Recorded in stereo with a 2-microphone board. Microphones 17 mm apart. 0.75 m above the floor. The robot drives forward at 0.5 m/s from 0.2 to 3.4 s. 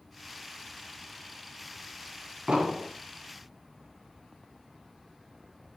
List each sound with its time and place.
2.5 s an explosion: 65° right (ahead or behind), 2.5 m